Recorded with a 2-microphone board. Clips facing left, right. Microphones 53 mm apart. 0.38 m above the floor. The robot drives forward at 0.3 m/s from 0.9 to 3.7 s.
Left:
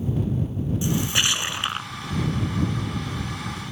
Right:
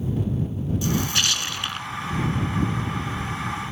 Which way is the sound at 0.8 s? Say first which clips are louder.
Left 1 dB; 20° left (ahead or behind).